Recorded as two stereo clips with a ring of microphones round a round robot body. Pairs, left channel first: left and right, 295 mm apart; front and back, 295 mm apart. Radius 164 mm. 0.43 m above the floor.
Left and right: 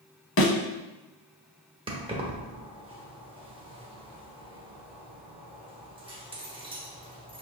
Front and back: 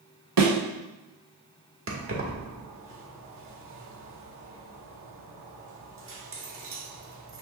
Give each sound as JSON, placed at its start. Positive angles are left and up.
{"t": 0.4, "sound": "a thud", "azimuth_deg": 135, "distance_m": 1.2}
{"t": 1.9, "sound": "keys jangling", "azimuth_deg": -155, "distance_m": 1.1}